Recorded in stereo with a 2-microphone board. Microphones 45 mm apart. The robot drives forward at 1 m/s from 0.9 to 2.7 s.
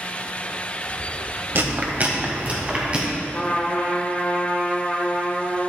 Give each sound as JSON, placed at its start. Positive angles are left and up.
{"t": 1.6, "sound": "chewing", "side_deg": -55, "distance_m": 1.1}
{"t": 3.3, "sound": "a trumpet", "side_deg": 20, "distance_m": 1.5}